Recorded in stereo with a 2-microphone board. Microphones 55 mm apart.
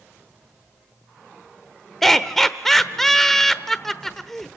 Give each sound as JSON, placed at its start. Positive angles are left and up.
{"t": 2.0, "sound": "laughter", "side_deg": 10, "distance_m": 0.9}